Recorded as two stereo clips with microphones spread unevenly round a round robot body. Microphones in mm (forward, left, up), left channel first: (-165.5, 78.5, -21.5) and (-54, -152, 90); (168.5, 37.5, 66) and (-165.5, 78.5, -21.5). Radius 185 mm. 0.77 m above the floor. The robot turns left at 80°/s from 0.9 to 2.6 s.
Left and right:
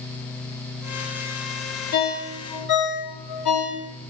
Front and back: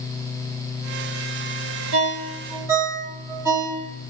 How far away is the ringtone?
About 2.5 m.